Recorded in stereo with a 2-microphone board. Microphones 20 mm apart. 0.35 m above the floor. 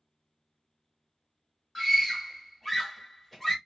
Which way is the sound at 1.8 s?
10° left (ahead or behind).